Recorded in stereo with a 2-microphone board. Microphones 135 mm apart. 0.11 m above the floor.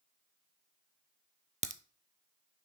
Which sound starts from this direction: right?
A crack, at 1.6 s.